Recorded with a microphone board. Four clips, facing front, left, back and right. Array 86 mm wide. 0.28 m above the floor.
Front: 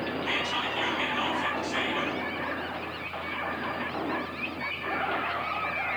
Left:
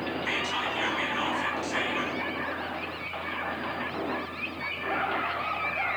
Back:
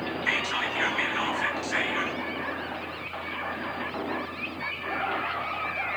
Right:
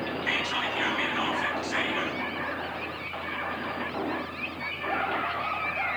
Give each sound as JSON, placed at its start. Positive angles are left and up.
{"t": 0.2, "sound": "whispering", "azimuth_deg": -170, "distance_m": 5.5}